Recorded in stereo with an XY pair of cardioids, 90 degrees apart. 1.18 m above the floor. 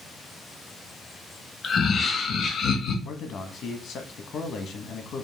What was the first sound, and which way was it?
Laughter, 55° left.